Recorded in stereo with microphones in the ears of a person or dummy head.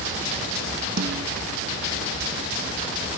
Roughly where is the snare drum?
Right.